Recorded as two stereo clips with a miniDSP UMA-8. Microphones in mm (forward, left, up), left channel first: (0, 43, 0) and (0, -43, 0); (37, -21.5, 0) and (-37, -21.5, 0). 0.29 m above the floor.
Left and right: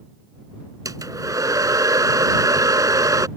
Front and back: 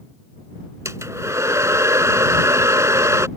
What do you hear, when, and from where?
0.8 s a hair dryer: 135° right